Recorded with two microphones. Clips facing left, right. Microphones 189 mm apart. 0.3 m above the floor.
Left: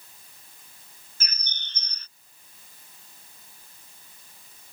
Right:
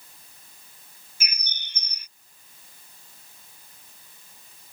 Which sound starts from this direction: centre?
A bird, at 1.2 s.